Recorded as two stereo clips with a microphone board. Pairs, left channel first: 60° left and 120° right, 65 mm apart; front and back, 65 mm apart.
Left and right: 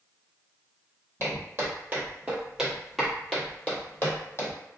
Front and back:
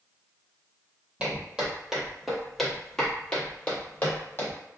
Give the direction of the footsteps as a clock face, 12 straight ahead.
4 o'clock.